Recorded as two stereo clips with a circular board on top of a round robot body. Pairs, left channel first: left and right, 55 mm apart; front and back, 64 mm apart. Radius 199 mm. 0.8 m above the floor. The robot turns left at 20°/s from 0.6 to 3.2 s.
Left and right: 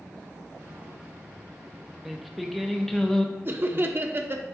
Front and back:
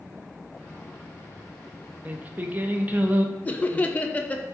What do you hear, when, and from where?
2.0 s singing: 175° right, 0.7 m; by 3.4 s 160° left, 0.7 m
3.5 s laughter: 60° right, 0.7 m